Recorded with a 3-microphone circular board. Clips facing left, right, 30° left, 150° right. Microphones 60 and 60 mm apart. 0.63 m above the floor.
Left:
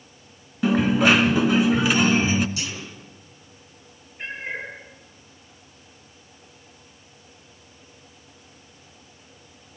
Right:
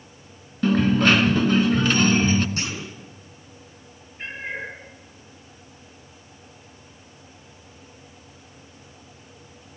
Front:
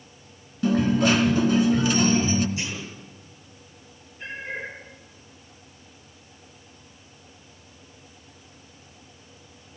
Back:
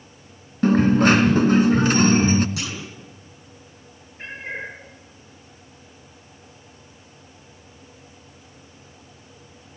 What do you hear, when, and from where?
0.6 s a dropped coin: 170° left, 1.2 m
2.6 s a clunk: 140° right, 5 m
4.2 s a cat meowing: 175° left, 9 m